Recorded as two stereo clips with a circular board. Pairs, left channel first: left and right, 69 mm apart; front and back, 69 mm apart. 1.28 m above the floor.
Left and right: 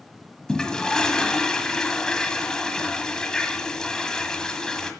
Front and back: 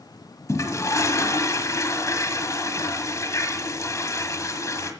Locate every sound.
0.5 s a toilet flushing: 15° left, 1.5 m